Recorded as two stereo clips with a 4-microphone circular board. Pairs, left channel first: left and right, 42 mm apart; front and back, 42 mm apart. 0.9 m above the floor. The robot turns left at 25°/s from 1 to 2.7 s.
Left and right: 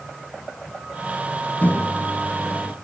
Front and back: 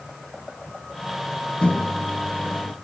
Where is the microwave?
55° left, 0.9 m; by 2.8 s 30° left, 0.9 m.